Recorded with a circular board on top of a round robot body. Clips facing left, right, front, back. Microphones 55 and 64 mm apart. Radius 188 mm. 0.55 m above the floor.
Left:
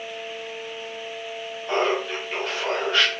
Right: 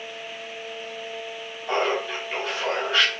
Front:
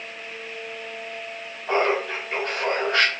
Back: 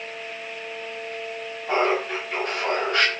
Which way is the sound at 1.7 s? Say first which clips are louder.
Left 1 dB, even; 30° right.